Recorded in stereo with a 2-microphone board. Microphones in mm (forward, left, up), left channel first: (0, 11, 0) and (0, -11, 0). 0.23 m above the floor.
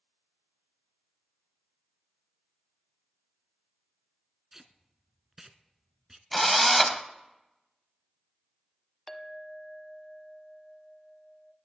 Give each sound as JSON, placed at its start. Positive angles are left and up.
{"t": 4.5, "sound": "tape being pulled", "side_deg": -15, "distance_m": 0.7}
{"t": 6.3, "sound": "a drill", "side_deg": 5, "distance_m": 0.7}
{"t": 9.1, "sound": "a clink", "side_deg": 10, "distance_m": 0.7}